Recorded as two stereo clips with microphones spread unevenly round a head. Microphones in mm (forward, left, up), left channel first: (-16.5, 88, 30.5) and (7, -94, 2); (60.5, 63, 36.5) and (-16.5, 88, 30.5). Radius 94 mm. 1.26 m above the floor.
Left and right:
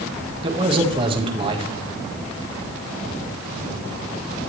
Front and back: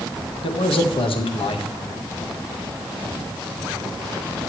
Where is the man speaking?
20° right, 1.5 m.